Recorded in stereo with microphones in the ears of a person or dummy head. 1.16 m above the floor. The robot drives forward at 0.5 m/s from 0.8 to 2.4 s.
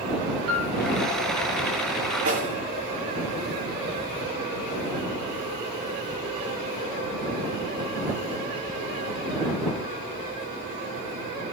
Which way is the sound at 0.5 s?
80° right.